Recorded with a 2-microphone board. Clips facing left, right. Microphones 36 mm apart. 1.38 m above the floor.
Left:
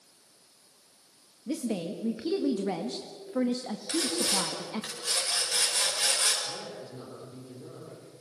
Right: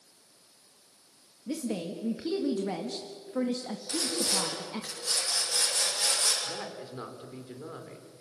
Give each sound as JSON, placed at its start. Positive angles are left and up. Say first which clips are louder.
{"t": 1.5, "sound": "a woman speaking", "louder": "left 1 dB", "side_deg": 5, "distance_m": 1.6}
{"t": 3.9, "sound": "sawing", "louder": "left 2 dB", "side_deg": 40, "distance_m": 6.0}
{"t": 6.4, "sound": "a woman speaking", "louder": "right 1 dB", "side_deg": -55, "distance_m": 4.5}